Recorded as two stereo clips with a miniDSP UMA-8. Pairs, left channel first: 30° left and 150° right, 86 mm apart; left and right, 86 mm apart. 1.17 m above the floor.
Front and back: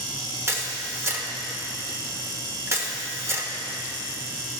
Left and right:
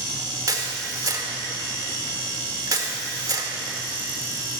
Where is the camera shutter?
105° right, 1.0 m.